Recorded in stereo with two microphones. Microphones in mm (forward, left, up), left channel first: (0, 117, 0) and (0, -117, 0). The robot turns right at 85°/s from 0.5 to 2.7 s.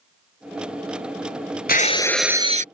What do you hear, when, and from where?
1.7 s breaking glass: 135° left; by 2.6 s 140° right